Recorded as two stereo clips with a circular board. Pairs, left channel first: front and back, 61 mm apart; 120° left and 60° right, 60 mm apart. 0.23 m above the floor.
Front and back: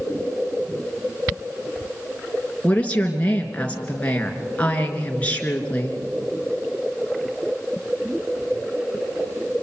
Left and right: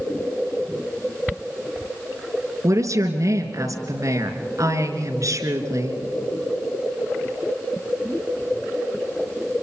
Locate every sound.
2.6 s a woman speaking: 70° right, 3 m